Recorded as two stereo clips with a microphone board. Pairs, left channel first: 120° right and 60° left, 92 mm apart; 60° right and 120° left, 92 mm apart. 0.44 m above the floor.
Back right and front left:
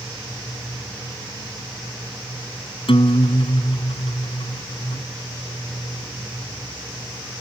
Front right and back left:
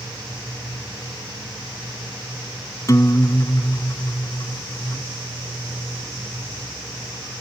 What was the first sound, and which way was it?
A guitar, 115° right.